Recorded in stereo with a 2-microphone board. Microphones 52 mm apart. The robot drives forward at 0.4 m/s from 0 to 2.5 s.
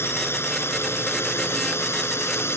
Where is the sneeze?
No sneeze in this recording.